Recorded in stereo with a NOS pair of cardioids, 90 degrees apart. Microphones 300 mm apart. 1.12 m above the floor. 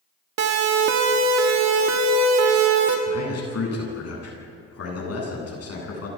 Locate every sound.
0.4 s a siren: 60° right, 2.5 m
3.1 s a man speaking: 55° left, 10 m